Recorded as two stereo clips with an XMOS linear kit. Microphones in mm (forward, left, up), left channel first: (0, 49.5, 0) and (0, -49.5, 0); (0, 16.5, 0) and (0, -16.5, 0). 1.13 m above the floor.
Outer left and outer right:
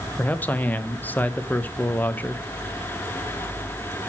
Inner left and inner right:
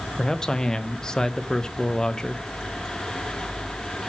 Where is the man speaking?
20° left (ahead or behind), 0.7 m.